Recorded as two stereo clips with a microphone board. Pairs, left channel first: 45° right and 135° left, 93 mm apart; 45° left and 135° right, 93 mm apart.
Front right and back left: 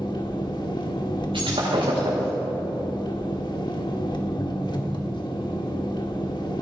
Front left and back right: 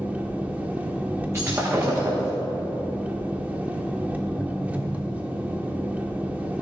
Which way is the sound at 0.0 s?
65° right.